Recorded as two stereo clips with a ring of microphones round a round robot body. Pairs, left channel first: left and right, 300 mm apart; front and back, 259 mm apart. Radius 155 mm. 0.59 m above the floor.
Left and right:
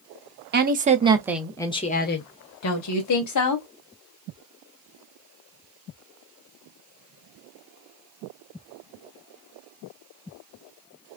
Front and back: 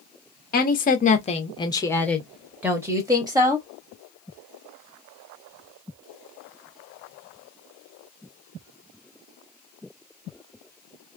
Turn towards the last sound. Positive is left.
turn(degrees=105)